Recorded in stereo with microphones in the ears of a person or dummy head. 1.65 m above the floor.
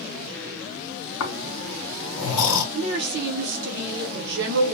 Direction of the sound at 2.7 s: 60° right (ahead or behind).